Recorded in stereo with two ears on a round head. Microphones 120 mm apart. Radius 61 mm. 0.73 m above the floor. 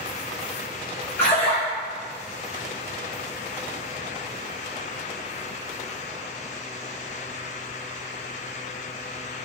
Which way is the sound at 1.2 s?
20° left (ahead or behind).